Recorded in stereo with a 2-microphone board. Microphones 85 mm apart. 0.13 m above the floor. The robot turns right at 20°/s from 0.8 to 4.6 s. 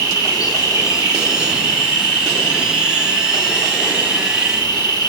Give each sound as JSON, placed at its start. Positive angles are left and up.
{"t": 0.0, "sound": "an insect", "azimuth_deg": 45, "distance_m": 0.9}